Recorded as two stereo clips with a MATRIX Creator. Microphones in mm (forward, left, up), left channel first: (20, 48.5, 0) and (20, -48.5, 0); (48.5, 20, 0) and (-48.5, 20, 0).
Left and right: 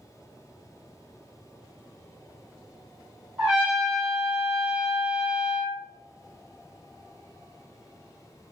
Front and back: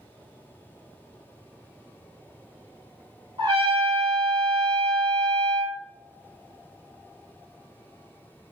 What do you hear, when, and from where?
3.4 s a trumpet: 170° right, 1.2 m